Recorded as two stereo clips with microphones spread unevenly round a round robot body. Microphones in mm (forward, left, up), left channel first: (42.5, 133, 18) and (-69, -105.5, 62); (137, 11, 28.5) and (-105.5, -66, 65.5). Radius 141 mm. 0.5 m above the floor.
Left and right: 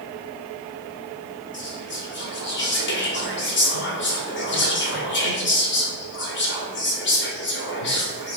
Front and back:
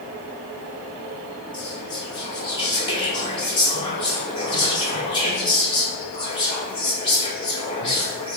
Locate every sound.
1.5 s whispering: 80° left, 2 m